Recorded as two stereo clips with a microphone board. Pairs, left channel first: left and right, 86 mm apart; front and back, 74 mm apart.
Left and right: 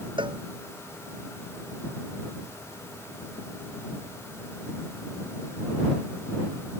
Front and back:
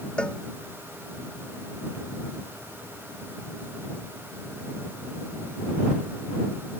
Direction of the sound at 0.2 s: 80° right.